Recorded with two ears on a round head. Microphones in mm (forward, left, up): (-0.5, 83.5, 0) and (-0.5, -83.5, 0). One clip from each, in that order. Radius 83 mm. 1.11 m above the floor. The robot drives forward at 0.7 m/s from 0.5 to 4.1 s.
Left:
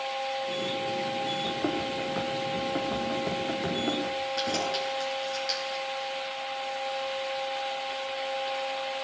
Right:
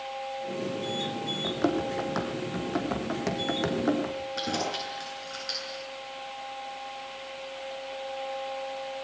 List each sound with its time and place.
1.4 s running footsteps: 60° right (ahead or behind), 3.5 m; by 4.3 s 70° right (ahead or behind), 5 m
4.4 s keys jangling: 10° left (ahead or behind), 9 m